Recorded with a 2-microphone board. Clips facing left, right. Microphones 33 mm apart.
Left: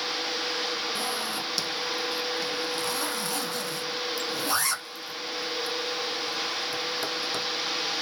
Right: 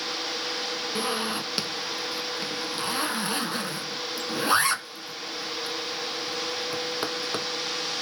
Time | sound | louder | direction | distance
0.9 | a zipper | right 2 dB | 35° right (ahead or behind) | 0.6 m